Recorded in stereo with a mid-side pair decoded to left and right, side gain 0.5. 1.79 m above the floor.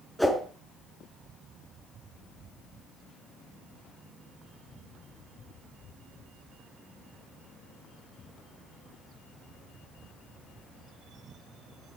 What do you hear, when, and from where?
0.2 s a whoosh: straight ahead, 5 m